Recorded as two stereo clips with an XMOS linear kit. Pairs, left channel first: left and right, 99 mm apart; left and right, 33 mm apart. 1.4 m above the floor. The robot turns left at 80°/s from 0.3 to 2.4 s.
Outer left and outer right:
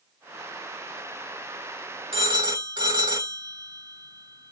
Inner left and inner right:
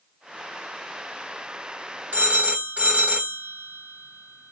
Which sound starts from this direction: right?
A phone ringing, at 2.1 s.